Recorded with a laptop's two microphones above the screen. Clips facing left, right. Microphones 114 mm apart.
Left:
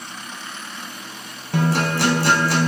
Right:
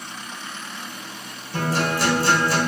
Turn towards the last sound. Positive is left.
turn(degrees=70)  # may be behind; listen again after turning